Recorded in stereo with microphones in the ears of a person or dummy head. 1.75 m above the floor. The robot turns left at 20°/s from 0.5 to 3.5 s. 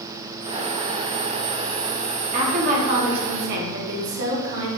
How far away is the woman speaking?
About 1.1 m.